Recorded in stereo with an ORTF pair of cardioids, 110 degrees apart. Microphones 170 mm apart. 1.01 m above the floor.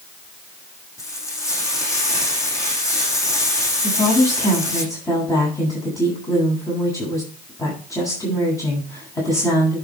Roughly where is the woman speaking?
Ahead.